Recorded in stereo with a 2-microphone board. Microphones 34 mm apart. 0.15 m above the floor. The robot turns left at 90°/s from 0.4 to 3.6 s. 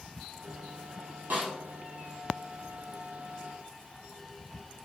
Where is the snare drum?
75° right (ahead or behind), 1.5 m; by 1.5 s 55° right (ahead or behind), 1.5 m.